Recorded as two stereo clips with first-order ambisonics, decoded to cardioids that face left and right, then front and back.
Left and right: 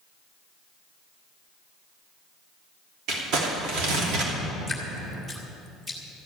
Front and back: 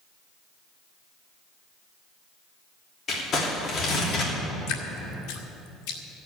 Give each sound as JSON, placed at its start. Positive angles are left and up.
{"t": 3.1, "sound": "crumpling", "azimuth_deg": -60, "distance_m": 3.0}
{"t": 4.7, "sound": "dripping", "azimuth_deg": 0, "distance_m": 2.0}